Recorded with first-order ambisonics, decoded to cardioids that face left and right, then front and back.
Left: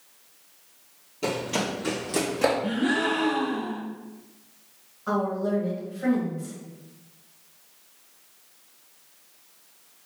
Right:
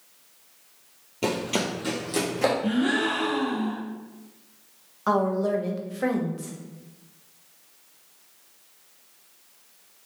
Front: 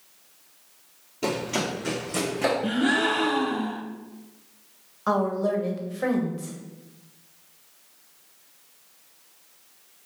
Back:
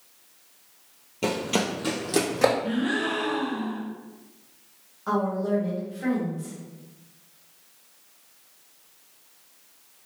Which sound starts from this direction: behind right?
Running footsteps, at 1.2 s.